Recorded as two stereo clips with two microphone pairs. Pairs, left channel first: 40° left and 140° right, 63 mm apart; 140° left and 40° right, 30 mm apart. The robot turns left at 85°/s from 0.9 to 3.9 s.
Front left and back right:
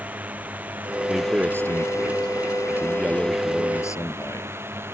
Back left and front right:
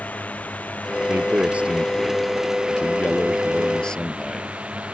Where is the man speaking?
50° right; by 4.5 s 70° left.